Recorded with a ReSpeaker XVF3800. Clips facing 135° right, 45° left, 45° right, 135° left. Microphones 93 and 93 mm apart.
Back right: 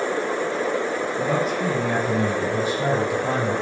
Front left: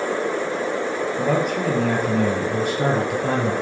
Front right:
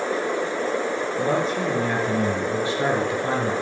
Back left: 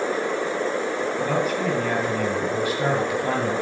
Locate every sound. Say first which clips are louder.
1.2 s a man speaking: front left 2 dB, front right 2 dB; 20° left, 5 m